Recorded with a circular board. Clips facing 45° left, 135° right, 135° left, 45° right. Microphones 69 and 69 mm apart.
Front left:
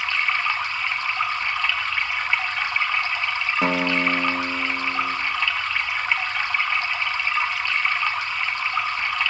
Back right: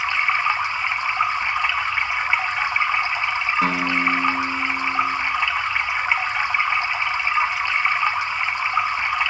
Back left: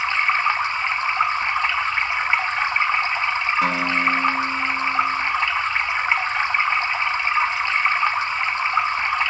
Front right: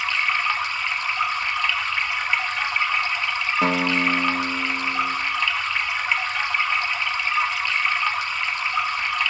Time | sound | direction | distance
0.0 | running water | 170° left | 0.8 m
3.6 | a guitar | 5° left | 1.5 m